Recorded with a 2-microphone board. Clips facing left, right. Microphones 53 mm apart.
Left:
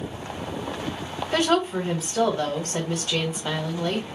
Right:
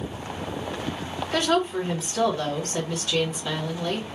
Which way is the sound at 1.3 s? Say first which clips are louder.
Left 1 dB; 35° left (ahead or behind).